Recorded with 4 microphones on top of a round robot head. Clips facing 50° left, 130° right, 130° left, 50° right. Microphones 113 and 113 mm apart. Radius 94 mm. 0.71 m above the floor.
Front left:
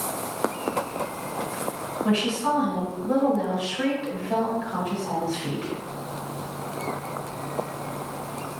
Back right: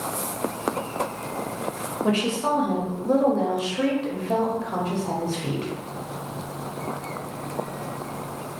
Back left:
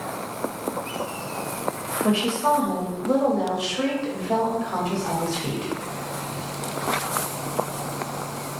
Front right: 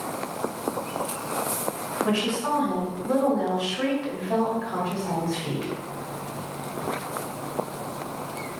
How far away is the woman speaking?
About 1.3 m.